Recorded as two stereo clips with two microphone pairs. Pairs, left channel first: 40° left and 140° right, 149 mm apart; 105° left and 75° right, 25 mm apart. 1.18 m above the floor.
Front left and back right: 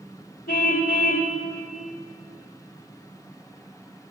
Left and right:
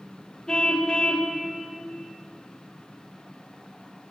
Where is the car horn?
45° left, 2.5 m.